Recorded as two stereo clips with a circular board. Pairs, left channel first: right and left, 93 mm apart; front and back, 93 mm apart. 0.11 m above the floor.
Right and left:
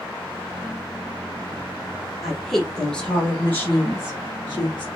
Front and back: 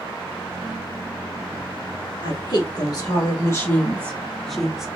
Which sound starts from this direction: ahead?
A woman speaking, at 2.2 s.